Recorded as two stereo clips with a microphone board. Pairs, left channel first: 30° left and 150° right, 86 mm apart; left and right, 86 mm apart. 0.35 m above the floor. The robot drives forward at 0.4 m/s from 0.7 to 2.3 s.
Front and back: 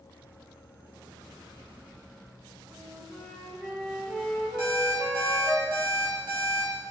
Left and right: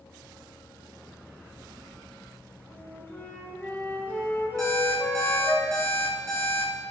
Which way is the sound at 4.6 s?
140° right.